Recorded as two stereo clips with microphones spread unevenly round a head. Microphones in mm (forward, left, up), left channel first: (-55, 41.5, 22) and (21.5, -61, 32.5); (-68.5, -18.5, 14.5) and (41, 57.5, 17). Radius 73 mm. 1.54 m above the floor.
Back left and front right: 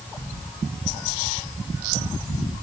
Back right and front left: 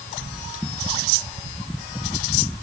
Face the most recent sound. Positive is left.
No sound to turn to.